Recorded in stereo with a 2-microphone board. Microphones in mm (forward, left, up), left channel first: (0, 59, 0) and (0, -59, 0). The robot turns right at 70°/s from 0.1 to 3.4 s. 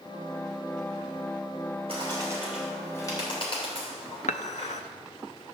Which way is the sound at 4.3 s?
80° left.